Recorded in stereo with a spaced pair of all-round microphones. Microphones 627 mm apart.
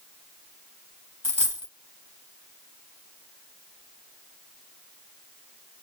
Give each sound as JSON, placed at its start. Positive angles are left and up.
{"t": 1.2, "sound": "a dropped coin", "side_deg": -10, "distance_m": 3.5}